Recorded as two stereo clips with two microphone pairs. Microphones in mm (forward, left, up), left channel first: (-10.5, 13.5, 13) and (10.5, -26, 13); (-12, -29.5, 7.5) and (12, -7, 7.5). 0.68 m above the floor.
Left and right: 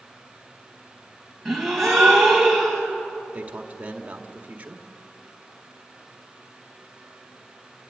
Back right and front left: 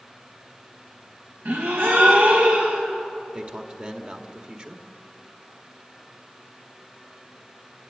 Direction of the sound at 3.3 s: 10° right.